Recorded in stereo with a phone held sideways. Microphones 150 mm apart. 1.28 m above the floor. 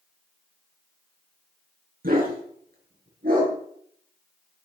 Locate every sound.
2.0 s a dog barking: 75° right (ahead or behind), 6.5 m